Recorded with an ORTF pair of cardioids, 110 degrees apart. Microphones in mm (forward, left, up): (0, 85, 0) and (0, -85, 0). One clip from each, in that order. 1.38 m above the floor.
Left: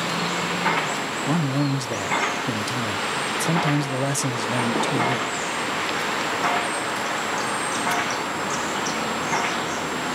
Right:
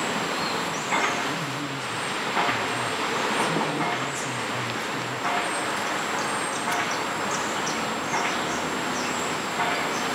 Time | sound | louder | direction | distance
1.3 | a man speaking | left 4 dB | 65° left | 0.5 m